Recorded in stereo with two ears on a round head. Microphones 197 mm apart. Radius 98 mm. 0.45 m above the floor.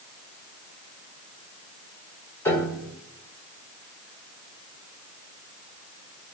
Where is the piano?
10° left (ahead or behind), 1.9 m.